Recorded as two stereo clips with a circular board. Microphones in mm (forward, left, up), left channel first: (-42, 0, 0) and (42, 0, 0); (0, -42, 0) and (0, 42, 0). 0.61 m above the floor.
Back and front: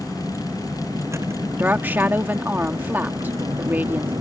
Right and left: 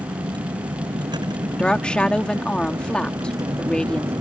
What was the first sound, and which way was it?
A vehicle, 60° left.